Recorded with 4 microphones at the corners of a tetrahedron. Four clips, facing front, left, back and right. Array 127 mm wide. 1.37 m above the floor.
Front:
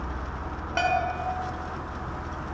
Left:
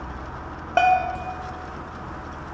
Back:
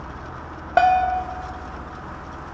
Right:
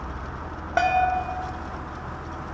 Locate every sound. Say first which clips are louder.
0.8 s a bell: left 2 dB, back 9 dB; 155° left, 0.7 m